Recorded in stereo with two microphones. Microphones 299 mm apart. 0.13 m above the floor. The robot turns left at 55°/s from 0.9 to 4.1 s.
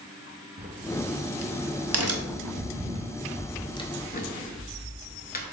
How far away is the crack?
About 0.5 m.